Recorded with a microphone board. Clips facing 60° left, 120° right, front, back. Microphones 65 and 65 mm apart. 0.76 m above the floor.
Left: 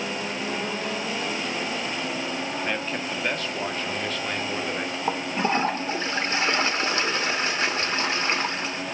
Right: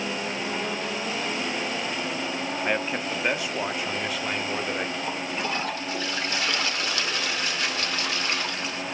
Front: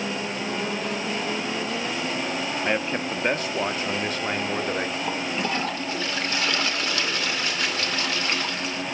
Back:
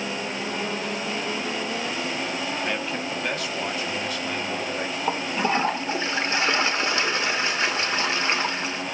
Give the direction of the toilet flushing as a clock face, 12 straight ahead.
8 o'clock.